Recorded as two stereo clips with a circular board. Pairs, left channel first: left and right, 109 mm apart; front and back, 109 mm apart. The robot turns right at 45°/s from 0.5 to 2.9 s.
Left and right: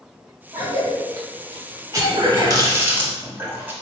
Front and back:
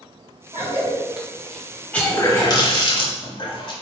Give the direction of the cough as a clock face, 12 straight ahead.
4 o'clock.